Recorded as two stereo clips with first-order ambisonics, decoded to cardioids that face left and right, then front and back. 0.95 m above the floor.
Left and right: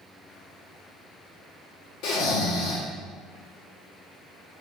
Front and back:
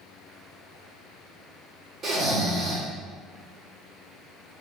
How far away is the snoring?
About 1.7 m.